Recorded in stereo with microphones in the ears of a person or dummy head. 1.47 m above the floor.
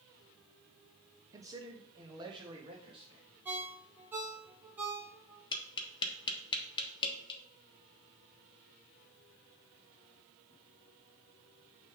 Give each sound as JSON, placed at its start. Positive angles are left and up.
{"t": 1.3, "sound": "a man speaking", "side_deg": -20, "distance_m": 0.7}
{"t": 3.5, "sound": "a ringtone", "side_deg": -10, "distance_m": 0.8}
{"t": 5.5, "sound": "tapping", "side_deg": 25, "distance_m": 1.1}